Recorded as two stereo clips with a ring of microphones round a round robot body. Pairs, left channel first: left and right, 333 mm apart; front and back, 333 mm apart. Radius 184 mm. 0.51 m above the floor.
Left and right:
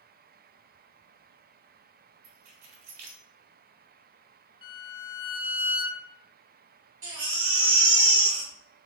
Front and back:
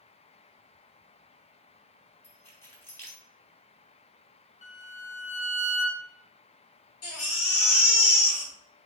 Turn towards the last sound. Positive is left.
turn(degrees=-45)